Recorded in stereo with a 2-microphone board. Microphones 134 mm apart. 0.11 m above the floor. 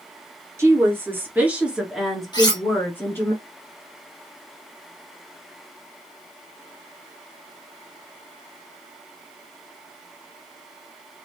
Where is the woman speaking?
20° right (ahead or behind), 1.7 m; by 3.3 s 20° left (ahead or behind), 1.4 m.